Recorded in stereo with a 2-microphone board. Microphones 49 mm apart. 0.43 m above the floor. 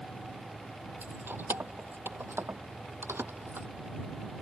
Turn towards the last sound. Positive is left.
turn(degrees=-55)  # may be behind; listen again after turning